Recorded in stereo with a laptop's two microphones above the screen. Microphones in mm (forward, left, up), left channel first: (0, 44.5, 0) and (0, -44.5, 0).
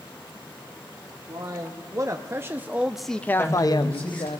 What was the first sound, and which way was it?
A man speaking, 45° right (ahead or behind).